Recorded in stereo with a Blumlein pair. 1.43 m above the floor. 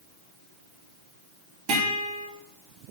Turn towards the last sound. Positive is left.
turn(degrees=-40)